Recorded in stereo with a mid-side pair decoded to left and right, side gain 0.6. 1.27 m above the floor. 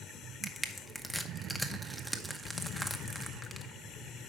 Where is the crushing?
Straight ahead, 0.9 m.